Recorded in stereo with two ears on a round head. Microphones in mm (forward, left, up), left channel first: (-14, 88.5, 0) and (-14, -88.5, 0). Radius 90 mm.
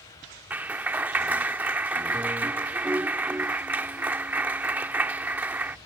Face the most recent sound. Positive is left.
turn(degrees=-10)  # may be behind; listen again after turning